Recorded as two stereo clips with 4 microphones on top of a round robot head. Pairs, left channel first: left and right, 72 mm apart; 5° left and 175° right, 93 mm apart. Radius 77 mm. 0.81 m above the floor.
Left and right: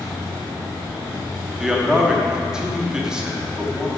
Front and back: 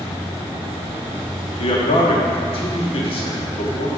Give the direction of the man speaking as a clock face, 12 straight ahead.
12 o'clock.